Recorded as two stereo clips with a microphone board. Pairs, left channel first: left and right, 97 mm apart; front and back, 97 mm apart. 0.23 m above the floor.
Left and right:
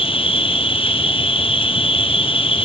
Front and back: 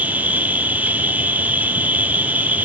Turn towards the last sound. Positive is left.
turn(degrees=105)